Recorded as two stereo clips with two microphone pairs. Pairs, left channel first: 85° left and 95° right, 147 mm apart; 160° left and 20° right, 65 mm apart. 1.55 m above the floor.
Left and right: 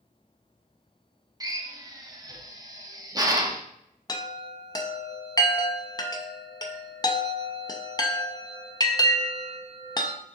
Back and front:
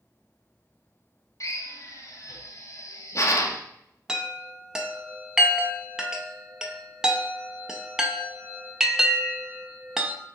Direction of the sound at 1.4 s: 160° right.